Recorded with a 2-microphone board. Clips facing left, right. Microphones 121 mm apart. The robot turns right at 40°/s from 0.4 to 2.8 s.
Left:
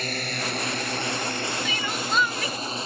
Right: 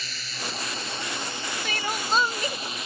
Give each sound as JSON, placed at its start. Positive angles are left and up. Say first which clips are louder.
{"t": 0.0, "sound": "a drone", "louder": "left 7 dB", "side_deg": 55}
{"t": 1.6, "sound": "crying", "louder": "even", "azimuth_deg": -55}